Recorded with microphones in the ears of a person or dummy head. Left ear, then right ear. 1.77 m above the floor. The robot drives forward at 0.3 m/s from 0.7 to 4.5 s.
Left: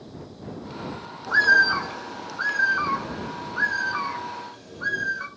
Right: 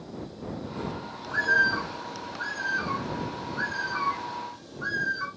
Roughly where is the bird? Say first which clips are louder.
Left 6 dB; left.